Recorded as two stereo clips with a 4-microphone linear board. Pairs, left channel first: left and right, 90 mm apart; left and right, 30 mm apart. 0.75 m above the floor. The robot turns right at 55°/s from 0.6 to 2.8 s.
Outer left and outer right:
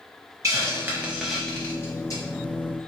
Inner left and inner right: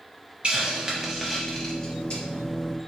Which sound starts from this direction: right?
A hiss, at 0.4 s.